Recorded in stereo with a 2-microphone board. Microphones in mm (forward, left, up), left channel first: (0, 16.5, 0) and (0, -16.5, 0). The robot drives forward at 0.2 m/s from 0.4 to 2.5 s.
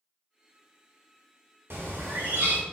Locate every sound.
1.7 s a bird: 80° right, 0.7 m; by 2.6 s 65° right (ahead or behind), 0.7 m